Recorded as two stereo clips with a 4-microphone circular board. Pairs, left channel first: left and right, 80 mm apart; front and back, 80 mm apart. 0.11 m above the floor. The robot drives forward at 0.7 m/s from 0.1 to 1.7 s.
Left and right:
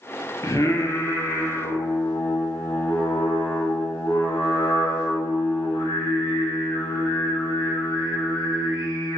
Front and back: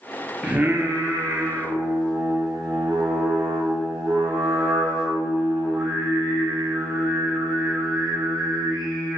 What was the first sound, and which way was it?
Singing, 105° left.